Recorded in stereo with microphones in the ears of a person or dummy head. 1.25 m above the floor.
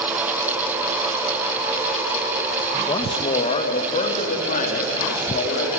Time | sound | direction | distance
2.9 | a man speaking | 30° left (ahead or behind) | 1.3 m